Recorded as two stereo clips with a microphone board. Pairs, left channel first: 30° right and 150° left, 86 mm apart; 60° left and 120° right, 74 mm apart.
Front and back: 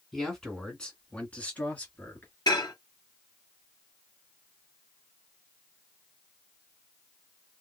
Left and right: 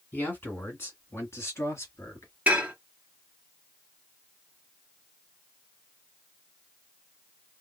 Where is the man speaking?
50° left, 1.7 m; by 2.3 s 30° left, 2.5 m.